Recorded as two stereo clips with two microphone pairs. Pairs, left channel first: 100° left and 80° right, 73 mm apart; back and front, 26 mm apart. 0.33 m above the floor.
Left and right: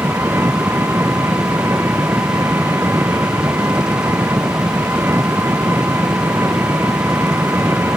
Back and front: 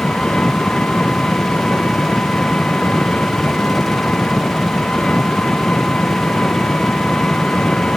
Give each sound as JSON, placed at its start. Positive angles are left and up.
{"t": 0.0, "sound": "an engine running", "azimuth_deg": -140}